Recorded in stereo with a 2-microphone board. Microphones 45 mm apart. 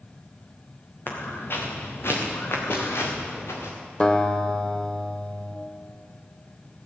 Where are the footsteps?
50° left (ahead or behind), 2.5 m; by 3.7 s 75° left (ahead or behind), 3 m.